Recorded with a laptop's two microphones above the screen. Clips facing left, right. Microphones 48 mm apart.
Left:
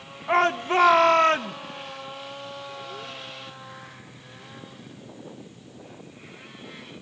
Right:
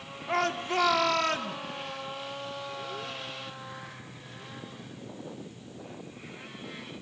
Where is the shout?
30° left (ahead or behind), 0.8 m.